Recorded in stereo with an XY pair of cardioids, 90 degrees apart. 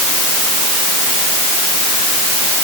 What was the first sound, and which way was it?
Only background noise.